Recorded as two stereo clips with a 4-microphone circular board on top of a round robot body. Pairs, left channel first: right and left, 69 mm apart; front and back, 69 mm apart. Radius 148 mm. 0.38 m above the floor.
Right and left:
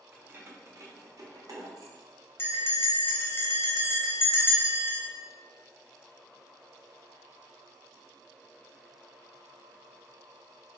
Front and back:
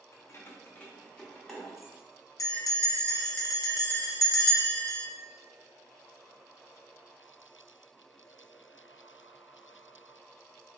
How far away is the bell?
About 0.9 m.